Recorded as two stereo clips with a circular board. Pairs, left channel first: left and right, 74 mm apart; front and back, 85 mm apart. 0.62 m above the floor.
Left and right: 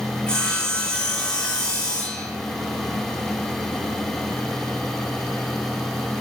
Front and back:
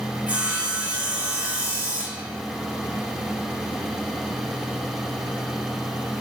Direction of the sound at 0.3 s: 145° left.